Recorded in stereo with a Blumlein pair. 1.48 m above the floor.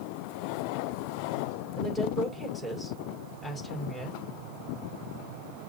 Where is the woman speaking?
5° left, 5 m.